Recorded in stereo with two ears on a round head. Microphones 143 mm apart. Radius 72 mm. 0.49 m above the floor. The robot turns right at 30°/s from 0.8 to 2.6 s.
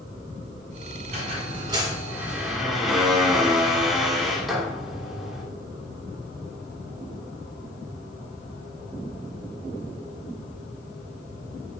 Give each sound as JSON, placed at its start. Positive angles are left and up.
{"t": 1.1, "sound": "a squeak", "azimuth_deg": -45, "distance_m": 1.3}